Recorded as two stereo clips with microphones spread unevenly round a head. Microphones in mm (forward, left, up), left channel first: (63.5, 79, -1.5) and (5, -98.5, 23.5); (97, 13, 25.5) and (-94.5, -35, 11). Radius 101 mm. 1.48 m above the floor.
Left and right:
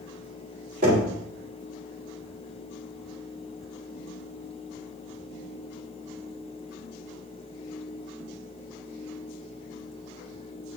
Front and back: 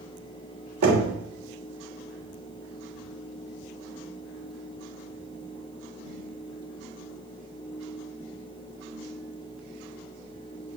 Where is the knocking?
155° right, 3 m.